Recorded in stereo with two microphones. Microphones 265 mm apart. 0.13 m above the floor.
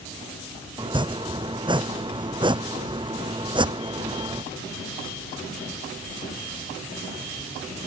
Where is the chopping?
20° right (ahead or behind).